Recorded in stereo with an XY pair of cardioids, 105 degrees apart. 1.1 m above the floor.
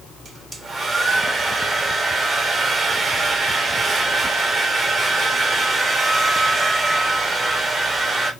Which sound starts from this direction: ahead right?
A hair dryer, at 0.2 s.